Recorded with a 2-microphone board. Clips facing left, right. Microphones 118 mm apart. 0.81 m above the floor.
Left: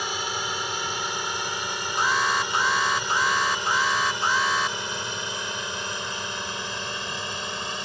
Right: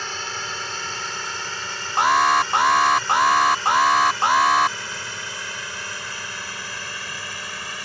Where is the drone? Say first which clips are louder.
Left 2 dB; 15° left (ahead or behind); by 7.9 s 20° left (ahead or behind).